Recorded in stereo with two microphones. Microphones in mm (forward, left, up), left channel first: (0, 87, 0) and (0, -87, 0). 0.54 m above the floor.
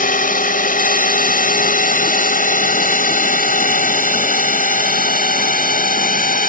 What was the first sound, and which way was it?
A drone, 50° left (ahead or behind).